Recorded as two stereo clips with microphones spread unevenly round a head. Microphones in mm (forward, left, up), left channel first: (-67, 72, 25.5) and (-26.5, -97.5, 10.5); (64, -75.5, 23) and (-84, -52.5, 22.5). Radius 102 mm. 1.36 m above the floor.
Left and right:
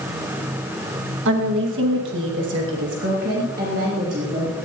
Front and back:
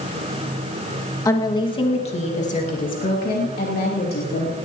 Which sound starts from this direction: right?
A woman speaking, at 1.2 s.